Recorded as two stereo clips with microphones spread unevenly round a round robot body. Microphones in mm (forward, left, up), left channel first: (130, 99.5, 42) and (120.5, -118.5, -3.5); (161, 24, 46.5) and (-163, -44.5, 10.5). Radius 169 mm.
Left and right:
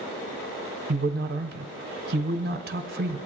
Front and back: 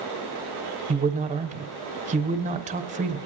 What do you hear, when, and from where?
0.9 s a man speaking: 110° right, 1.3 m